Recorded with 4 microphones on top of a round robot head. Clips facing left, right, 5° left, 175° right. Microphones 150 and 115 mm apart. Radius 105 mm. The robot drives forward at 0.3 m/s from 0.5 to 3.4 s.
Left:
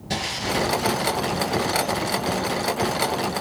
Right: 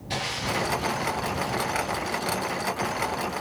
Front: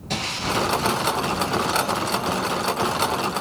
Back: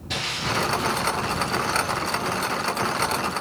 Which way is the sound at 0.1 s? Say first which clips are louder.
Left 4 dB, front 2 dB; 50° left.